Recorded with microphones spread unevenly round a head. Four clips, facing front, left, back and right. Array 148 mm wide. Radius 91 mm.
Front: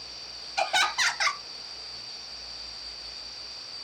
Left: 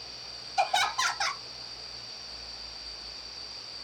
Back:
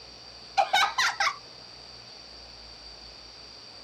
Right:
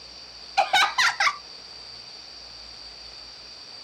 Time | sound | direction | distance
0.6 | laughter | 75° right | 0.8 m